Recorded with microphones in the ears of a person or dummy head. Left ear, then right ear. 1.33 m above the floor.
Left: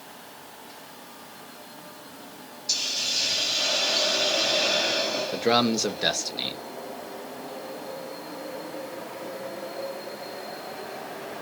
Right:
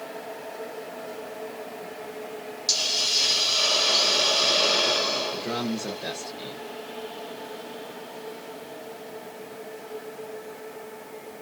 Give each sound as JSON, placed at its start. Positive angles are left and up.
{"t": 2.7, "sound": "a hiss", "side_deg": -55, "distance_m": 1.6}
{"t": 5.3, "sound": "a man speaking", "side_deg": 45, "distance_m": 0.7}